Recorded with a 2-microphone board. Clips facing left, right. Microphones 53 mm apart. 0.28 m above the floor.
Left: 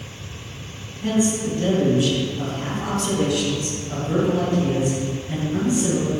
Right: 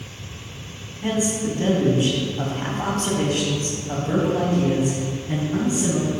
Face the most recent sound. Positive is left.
turn(degrees=-35)  # may be behind; listen again after turning